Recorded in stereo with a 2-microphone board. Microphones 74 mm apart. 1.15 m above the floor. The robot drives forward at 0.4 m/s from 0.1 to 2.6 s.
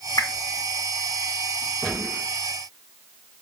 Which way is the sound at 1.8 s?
5° left (ahead or behind).